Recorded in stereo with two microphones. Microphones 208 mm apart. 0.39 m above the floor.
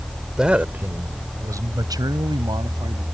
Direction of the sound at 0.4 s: 5° right (ahead or behind).